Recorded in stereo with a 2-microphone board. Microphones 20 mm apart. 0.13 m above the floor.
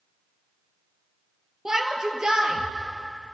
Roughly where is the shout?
Right.